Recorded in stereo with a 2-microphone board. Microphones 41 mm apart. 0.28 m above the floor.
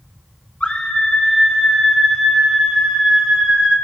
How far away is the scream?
About 1.4 m.